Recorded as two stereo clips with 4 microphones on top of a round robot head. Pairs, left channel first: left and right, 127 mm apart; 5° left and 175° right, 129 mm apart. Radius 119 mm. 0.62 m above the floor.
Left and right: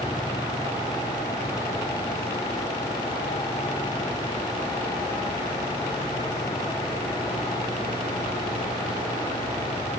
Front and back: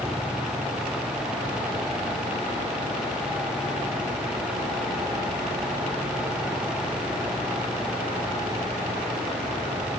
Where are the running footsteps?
No running footsteps in this recording.